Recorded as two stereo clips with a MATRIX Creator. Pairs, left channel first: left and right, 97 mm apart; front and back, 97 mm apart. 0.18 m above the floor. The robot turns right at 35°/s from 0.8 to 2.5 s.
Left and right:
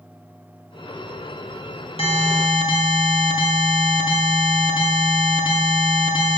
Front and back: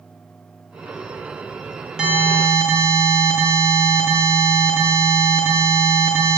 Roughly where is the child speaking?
No child speaking in this recording.